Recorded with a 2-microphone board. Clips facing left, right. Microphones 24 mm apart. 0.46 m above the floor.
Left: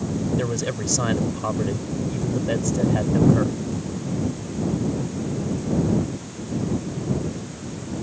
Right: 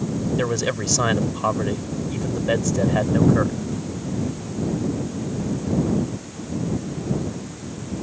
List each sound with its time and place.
0.4 s a man speaking: 25° right (ahead or behind)